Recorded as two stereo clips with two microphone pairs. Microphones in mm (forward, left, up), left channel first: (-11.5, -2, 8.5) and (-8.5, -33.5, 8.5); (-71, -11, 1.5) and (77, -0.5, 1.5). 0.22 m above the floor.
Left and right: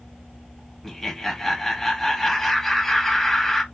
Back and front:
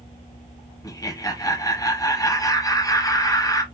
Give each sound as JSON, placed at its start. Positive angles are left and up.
{"t": 0.8, "sound": "laughter", "azimuth_deg": 165, "distance_m": 1.1}